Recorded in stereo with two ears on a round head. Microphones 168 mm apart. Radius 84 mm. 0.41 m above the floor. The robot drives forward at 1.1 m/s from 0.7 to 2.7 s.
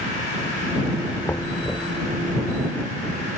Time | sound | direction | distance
1.2 | knocking | 15° left (ahead or behind) | ?